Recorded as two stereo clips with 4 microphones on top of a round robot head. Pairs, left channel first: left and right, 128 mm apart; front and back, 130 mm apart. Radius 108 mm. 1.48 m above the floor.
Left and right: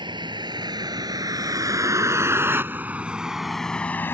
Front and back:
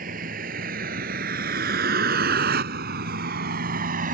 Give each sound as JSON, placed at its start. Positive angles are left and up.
{"t": 0.0, "sound": "a vehicle", "azimuth_deg": -145}